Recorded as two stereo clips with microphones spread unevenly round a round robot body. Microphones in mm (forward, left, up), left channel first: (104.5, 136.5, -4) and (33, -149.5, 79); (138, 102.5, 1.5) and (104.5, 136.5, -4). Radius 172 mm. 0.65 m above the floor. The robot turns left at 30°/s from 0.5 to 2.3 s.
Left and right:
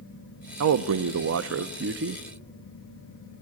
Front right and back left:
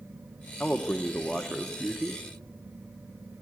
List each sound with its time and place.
0.6 s a man speaking: 115° right, 0.6 m; by 2.2 s 165° right, 0.6 m